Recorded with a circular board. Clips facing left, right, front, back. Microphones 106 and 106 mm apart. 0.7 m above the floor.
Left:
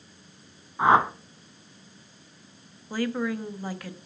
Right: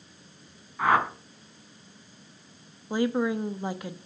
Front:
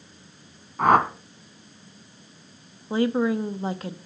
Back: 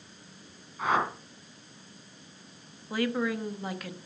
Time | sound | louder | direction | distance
0.8 | a whoosh | left 4 dB, front 9 dB | 25° left | 1.1 m
2.9 | a woman speaking | right 3 dB, front 7 dB | 35° right | 0.9 m